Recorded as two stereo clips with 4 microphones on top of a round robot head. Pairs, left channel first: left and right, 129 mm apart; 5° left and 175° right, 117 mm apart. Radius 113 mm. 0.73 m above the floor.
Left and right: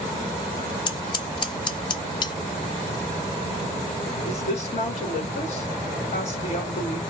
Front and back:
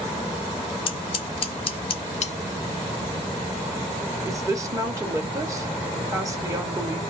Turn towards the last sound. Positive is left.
turn(degrees=125)